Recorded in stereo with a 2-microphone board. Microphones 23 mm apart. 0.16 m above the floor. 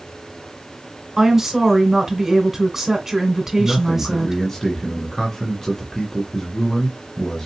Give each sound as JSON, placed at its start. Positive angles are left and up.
{"t": 1.2, "sound": "a woman speaking", "side_deg": -15, "distance_m": 1.3}
{"t": 3.6, "sound": "a man speaking", "side_deg": 25, "distance_m": 1.7}